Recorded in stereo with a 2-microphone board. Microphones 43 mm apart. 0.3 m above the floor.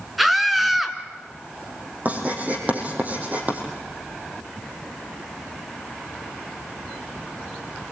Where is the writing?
40° right (ahead or behind), 5.5 m.